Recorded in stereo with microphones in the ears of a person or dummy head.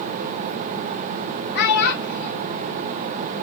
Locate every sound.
1.6 s a child speaking: 55° left (ahead or behind), 1.6 m